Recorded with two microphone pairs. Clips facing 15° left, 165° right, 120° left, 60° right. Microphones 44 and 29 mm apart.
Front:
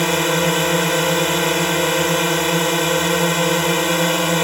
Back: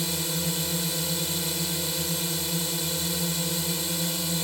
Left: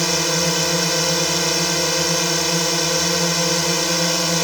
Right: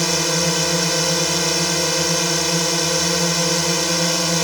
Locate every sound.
0.0 s a drone: 35° left